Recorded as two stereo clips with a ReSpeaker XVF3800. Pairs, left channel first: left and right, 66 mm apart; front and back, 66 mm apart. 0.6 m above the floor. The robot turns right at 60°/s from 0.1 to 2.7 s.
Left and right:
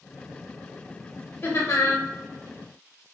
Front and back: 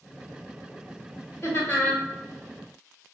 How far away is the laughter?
About 1.8 m.